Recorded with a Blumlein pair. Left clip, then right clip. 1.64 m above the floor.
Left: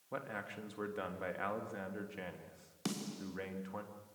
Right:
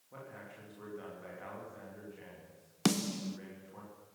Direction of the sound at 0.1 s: 30° left.